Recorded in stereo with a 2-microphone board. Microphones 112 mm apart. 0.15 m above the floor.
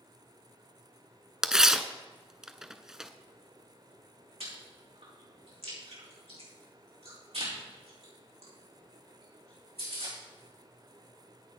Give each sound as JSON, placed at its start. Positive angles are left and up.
{"t": 1.4, "sound": "tearing paper", "side_deg": -5, "distance_m": 0.7}
{"t": 4.4, "sound": "chewing", "side_deg": -75, "distance_m": 5.0}